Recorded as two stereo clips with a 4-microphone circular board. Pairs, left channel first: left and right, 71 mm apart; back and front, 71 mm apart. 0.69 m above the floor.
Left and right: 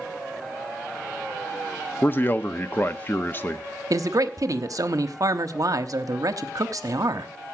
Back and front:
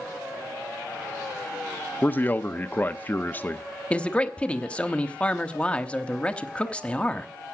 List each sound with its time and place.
2.0 s a man speaking: 130° left, 0.7 m
3.9 s a man speaking: 110° right, 0.9 m